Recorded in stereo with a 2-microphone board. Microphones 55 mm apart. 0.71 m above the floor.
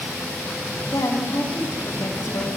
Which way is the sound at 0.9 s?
80° left.